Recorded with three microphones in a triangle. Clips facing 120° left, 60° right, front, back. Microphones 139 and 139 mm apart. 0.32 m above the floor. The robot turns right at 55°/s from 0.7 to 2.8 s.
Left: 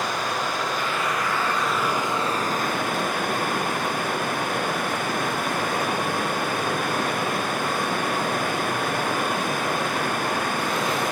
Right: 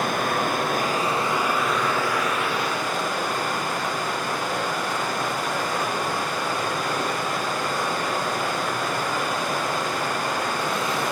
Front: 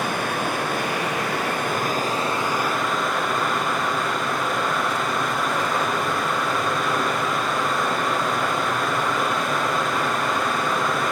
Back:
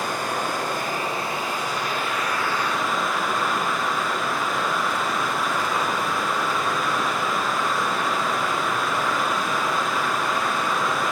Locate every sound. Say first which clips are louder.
0.0 s running water: right 3 dB, front 2 dB; 25° right, 4.5 m; by 11.1 s 90° left, 4.5 m